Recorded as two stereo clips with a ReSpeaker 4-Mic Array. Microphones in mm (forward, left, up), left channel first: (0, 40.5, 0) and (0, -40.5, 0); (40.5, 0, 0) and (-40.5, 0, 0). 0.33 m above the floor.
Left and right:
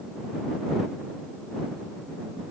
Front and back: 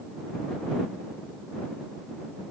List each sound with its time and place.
Only background noise.